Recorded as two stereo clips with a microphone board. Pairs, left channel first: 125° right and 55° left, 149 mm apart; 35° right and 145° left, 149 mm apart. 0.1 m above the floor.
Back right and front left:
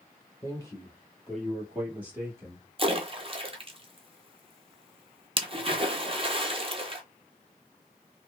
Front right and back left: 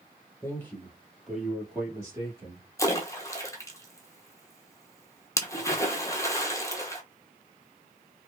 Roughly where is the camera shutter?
I don't hear a camera shutter.